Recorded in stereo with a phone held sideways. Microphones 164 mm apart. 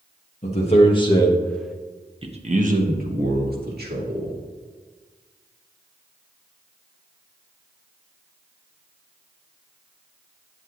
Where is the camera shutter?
No camera shutter in this recording.